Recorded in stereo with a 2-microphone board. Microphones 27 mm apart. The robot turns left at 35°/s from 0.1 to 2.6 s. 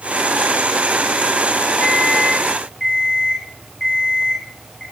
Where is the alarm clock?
30° left (ahead or behind), 8.5 m; by 4.8 s 5° left (ahead or behind), 8.5 m.